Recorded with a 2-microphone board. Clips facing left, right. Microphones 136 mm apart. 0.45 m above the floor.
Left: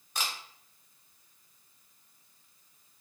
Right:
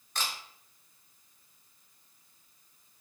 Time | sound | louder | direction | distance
0.1 | a camera shutter | even | 10° left (ahead or behind) | 0.6 m